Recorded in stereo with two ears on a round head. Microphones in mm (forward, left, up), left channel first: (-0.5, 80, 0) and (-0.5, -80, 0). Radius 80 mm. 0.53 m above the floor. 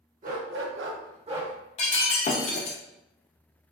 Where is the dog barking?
45° right (ahead or behind), 0.7 m; by 1.5 s 25° right (ahead or behind), 0.8 m.